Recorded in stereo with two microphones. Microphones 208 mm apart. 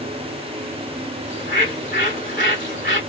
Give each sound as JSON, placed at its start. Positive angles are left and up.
{"t": 1.3, "sound": "a bird", "side_deg": 70, "distance_m": 2.5}